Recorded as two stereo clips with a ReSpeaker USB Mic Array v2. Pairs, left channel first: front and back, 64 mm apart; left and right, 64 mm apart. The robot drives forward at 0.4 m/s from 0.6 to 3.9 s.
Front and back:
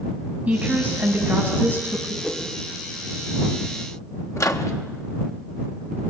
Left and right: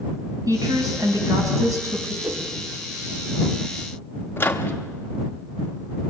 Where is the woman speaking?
110° right, 5 m; by 2.1 s 115° right, 5 m.